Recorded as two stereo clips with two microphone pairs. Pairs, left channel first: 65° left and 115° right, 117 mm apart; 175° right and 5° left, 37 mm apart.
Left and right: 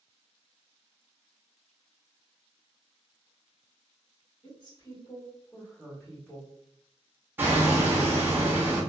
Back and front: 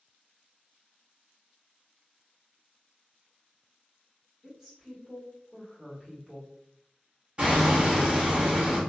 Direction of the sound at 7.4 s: 45° right.